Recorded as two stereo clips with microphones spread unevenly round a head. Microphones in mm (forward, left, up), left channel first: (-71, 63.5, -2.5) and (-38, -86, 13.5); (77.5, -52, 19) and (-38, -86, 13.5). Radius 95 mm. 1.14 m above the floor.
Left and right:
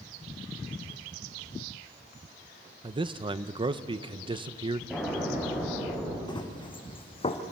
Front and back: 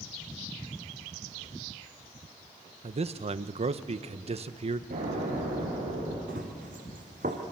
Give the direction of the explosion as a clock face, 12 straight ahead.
5 o'clock.